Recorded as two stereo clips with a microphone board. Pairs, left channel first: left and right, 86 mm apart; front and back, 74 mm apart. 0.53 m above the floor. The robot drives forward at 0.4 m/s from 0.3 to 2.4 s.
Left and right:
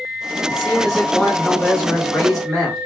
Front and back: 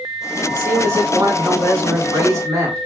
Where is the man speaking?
175° left, 2 m.